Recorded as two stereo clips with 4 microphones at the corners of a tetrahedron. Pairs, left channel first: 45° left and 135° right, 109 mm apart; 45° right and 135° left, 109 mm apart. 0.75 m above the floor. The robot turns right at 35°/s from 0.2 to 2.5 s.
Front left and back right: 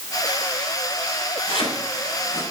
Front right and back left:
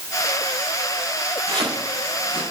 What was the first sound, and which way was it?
Chopping, 75° left.